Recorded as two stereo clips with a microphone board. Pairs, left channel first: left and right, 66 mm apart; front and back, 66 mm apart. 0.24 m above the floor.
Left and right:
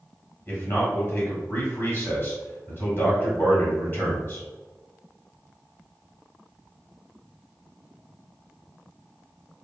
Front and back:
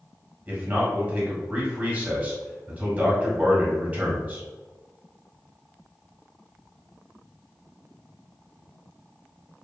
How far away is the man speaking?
About 1.2 m.